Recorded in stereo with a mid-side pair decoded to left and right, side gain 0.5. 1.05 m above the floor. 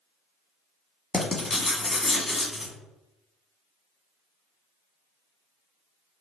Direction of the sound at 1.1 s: 15° left.